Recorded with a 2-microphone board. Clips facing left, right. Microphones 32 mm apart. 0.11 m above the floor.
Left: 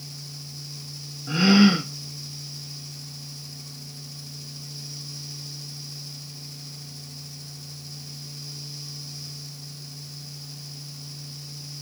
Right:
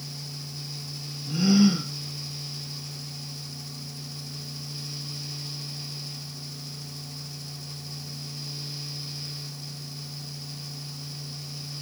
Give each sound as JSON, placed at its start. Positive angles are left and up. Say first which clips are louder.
{"t": 1.3, "sound": "a gasp", "louder": "left 3 dB", "side_deg": 55, "distance_m": 0.6}